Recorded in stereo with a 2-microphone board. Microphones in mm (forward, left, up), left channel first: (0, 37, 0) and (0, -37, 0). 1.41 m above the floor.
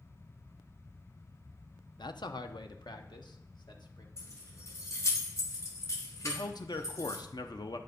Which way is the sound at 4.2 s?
45° left (ahead or behind).